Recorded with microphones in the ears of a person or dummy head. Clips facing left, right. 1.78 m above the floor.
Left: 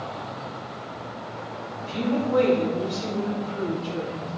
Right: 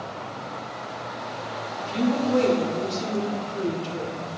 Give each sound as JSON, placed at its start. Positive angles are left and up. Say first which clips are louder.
{"t": 1.8, "sound": "a woman speaking", "louder": "right 2 dB", "side_deg": -35, "distance_m": 3.0}